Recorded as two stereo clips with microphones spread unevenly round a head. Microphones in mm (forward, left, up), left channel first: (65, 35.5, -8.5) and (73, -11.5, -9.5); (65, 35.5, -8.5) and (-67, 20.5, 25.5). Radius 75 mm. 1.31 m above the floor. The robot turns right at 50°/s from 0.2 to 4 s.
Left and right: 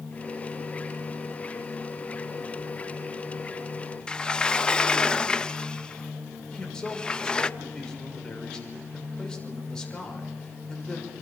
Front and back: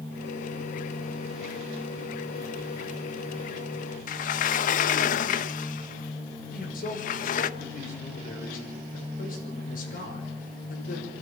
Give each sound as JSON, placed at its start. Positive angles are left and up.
{"t": 4.1, "sound": "a sliding door", "azimuth_deg": 30, "distance_m": 0.7}
{"t": 6.5, "sound": "a man speaking", "azimuth_deg": 25, "distance_m": 6.0}